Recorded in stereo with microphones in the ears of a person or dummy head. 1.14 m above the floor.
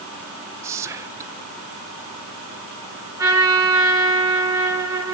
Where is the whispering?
15° right (ahead or behind), 0.6 m.